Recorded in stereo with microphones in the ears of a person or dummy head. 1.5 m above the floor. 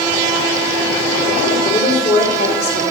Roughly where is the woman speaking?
Left.